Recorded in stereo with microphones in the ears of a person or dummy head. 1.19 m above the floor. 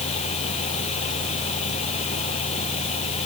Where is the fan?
35° left (ahead or behind).